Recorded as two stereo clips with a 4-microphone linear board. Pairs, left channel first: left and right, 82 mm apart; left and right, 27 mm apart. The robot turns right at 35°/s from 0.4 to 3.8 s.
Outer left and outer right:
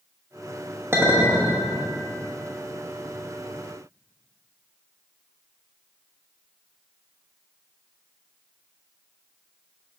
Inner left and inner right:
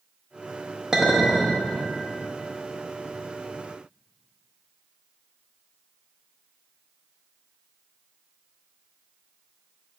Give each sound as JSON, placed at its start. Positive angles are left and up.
{"t": 0.9, "sound": "a clink", "side_deg": -30, "distance_m": 0.9}